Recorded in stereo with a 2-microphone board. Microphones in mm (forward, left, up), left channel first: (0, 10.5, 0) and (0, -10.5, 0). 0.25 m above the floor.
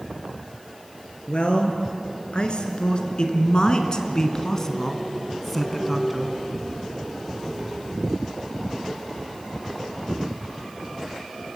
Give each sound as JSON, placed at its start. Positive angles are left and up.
{"t": 1.3, "sound": "a man speaking", "side_deg": 60, "distance_m": 3.0}